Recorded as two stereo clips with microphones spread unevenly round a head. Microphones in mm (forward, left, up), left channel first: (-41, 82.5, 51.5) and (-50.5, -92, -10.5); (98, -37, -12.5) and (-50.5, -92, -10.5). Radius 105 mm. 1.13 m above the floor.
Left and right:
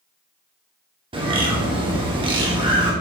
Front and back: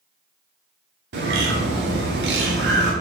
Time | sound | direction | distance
1.1 | a bird | 155° right | 2 m